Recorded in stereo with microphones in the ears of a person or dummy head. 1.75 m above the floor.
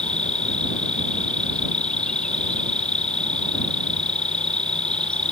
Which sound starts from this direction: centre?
An insect, at 0.0 s.